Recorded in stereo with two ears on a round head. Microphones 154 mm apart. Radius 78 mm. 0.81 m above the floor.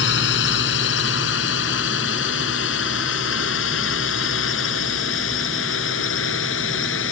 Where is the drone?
70° left (ahead or behind); by 7.1 s 80° left.